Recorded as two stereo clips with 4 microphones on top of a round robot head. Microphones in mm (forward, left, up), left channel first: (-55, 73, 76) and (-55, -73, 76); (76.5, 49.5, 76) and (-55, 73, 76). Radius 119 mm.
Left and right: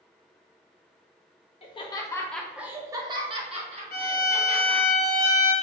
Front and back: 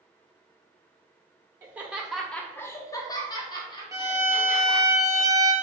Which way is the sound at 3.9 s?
105° left.